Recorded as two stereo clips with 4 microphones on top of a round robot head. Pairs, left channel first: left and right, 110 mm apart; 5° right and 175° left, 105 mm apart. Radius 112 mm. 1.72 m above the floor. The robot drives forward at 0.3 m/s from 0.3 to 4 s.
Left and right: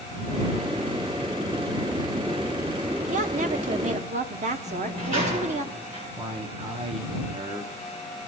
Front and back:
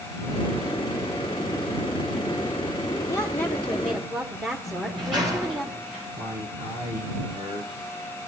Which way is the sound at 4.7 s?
95° right.